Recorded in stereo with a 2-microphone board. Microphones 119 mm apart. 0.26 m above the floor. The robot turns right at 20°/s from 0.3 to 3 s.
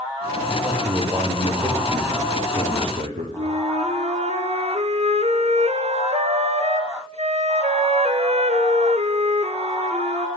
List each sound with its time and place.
0.5 s a man speaking: 145° right, 9.5 m; by 3.3 s 95° right, 9.5 m
3.4 s a flute: 60° right (ahead or behind), 2 m